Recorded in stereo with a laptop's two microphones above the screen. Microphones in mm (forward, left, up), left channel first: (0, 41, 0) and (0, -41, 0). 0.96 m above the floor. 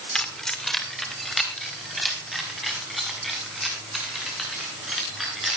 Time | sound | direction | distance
0.1 | keys jangling | 10° left (ahead or behind) | 1.5 m